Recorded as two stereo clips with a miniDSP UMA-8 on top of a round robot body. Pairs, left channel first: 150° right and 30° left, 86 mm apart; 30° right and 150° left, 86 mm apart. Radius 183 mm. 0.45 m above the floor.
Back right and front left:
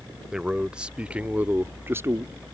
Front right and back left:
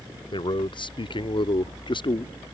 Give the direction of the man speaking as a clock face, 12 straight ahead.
2 o'clock.